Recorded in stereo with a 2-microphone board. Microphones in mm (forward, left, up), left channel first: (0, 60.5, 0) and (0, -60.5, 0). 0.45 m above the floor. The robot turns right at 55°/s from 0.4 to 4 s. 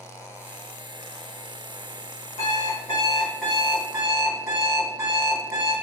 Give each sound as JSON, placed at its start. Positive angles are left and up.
{"t": 2.4, "sound": "an alarm clock", "azimuth_deg": 120, "distance_m": 1.9}